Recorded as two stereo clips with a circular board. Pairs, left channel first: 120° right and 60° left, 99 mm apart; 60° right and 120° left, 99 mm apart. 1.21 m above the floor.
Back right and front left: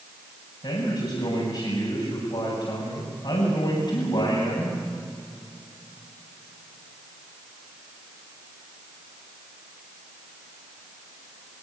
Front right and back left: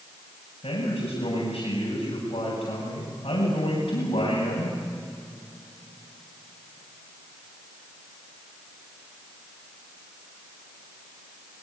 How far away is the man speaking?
About 7.5 m.